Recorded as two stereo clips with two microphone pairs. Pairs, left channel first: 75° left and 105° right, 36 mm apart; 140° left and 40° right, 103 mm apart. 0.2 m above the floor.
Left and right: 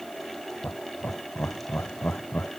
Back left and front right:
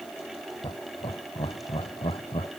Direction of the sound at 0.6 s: 110° left.